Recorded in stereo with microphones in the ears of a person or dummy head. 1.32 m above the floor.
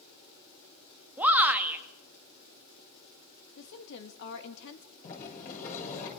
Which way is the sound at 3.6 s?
65° left (ahead or behind).